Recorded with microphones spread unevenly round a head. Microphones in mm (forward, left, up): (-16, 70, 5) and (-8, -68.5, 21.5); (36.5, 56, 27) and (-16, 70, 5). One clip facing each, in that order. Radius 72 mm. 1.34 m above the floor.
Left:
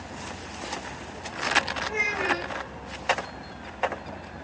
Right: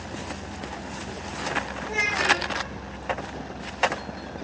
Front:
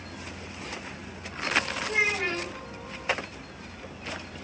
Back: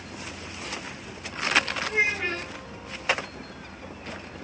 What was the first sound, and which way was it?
A child speaking, 50° right.